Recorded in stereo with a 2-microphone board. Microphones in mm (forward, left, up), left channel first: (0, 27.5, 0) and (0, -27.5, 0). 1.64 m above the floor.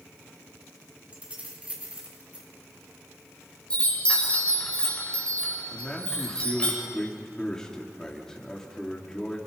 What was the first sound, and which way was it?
Keys jangling, 25° right (ahead or behind).